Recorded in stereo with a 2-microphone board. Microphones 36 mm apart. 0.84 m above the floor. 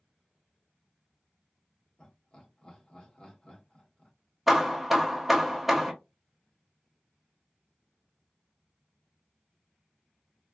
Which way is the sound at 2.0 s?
30° left (ahead or behind).